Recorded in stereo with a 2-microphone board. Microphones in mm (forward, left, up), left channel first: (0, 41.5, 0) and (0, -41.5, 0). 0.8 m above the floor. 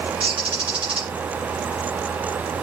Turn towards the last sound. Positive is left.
turn(degrees=-70)  # may be behind; listen again after turning